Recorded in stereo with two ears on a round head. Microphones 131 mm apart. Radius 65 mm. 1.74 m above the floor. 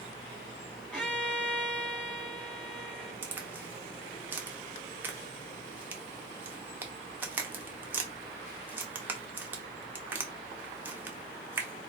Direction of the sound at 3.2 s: 15° right (ahead or behind).